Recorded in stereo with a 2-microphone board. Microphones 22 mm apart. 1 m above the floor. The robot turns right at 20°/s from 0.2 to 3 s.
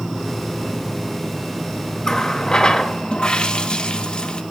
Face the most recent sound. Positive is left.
turn(degrees=45)  # may be behind; listen again after turning